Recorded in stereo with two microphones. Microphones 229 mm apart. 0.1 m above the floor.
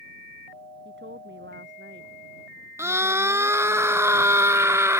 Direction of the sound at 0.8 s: 60° right (ahead or behind).